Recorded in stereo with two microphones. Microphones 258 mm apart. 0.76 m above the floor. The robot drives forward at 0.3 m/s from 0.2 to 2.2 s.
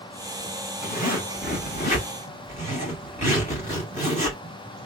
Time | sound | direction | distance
0.8 | a zipper | 35° left (ahead or behind) | 1.7 m